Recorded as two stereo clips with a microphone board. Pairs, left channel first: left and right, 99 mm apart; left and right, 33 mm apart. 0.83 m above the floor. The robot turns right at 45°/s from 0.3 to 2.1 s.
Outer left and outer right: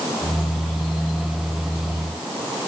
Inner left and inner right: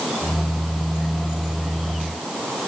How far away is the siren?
No siren in this recording.